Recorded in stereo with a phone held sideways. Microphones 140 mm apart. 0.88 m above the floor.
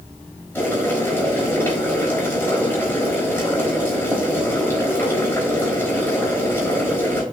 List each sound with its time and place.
0.6 s boiling: 15° left (ahead or behind), 4 m